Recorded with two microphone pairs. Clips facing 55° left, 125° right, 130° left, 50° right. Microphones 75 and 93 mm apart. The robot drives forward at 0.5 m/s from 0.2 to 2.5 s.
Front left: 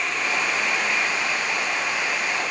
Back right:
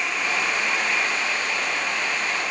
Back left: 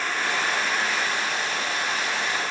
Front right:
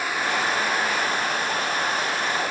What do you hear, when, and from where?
Only background noise.